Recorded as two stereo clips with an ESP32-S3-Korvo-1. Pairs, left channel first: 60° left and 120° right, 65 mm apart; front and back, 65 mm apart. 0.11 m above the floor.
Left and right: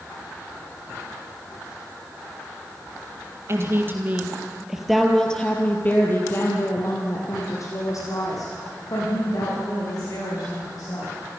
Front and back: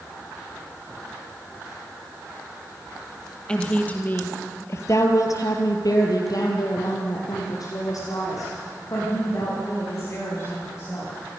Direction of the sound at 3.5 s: 75° right.